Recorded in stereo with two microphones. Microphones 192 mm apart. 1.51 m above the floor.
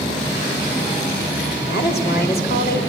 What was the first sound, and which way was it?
A woman speaking, 60° left (ahead or behind).